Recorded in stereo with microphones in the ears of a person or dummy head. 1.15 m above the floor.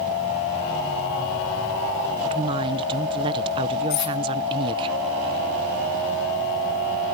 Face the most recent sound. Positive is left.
turn(degrees=50)  # may be behind; listen again after turning